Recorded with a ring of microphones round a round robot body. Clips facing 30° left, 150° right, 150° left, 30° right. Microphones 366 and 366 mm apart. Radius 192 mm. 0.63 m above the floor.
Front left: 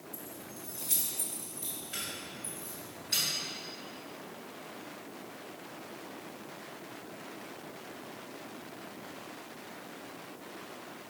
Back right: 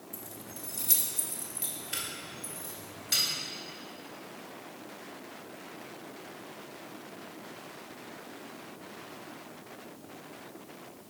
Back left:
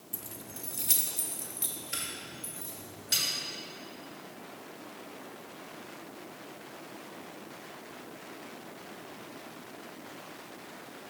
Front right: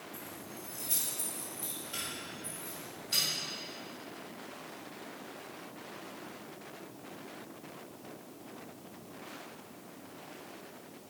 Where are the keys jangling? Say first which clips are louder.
Even, back left 1 dB; 140° left, 0.7 m; by 3.2 s 165° right, 3 m.